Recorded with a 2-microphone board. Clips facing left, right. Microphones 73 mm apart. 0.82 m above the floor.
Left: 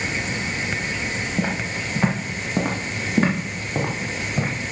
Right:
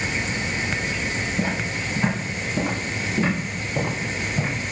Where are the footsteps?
75° left (ahead or behind), 3.5 m; by 4.5 s 60° left (ahead or behind), 4.5 m.